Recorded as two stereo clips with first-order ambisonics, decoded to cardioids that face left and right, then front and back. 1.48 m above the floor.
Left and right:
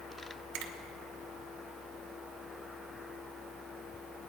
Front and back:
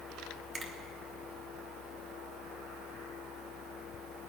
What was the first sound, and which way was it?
A finger snap, 105° right.